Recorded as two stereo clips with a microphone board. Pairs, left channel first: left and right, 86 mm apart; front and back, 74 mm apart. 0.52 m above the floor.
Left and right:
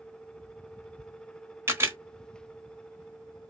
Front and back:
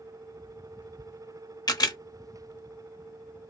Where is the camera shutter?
30° right, 0.9 m.